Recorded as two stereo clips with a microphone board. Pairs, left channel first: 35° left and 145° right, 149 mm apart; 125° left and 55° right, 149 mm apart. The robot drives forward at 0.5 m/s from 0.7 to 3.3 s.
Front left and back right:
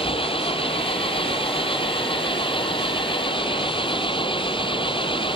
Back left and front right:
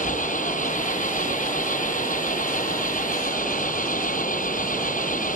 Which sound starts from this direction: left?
An engine running, at 0.0 s.